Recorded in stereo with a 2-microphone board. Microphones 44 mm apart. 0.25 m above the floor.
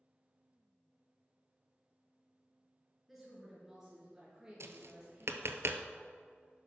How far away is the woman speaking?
About 3.5 m.